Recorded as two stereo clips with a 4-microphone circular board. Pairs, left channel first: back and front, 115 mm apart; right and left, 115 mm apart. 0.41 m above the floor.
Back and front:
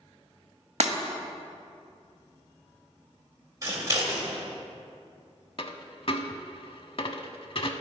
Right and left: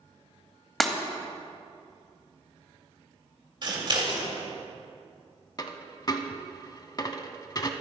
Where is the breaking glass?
5° right, 0.8 m.